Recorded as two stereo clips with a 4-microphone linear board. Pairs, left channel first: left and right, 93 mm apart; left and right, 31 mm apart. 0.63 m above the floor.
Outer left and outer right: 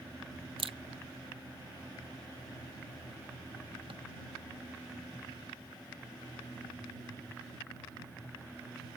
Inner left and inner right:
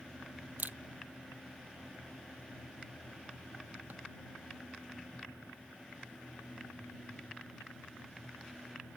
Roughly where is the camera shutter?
Right.